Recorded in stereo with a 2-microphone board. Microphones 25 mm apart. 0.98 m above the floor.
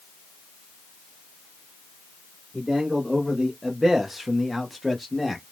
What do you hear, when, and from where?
2.5 s a man speaking: 5° right (ahead or behind), 1.7 m; by 5.4 s 5° left (ahead or behind), 1.4 m